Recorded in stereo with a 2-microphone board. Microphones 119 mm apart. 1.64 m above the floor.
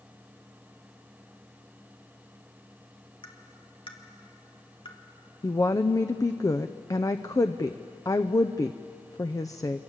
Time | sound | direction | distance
3.2 | tapping | 45° left (ahead or behind) | 2 m
5.4 | a woman speaking | 30° left (ahead or behind) | 0.6 m